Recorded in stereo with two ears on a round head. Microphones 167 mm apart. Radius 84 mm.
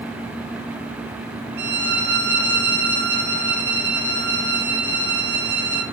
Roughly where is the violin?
Right.